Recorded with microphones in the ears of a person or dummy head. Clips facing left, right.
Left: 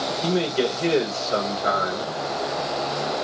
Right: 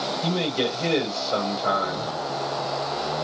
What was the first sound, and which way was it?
A man speaking, 20° left (ahead or behind).